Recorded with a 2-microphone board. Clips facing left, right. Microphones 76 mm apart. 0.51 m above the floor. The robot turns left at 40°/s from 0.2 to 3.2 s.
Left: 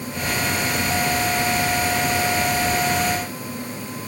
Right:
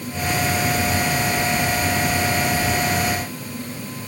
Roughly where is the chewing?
No chewing in this recording.